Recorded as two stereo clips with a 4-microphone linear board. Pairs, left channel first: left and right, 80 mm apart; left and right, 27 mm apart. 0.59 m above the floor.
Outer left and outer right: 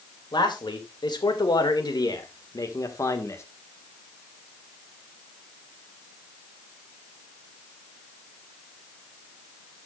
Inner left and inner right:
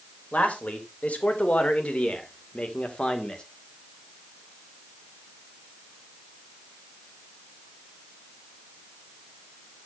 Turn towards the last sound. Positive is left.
turn(degrees=35)  # may be behind; listen again after turning